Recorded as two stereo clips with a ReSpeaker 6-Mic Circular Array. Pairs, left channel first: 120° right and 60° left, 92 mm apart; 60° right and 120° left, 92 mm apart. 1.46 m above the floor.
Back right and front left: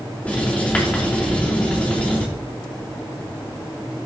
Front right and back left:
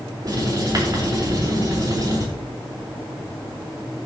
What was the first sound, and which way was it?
Writing, 165° left.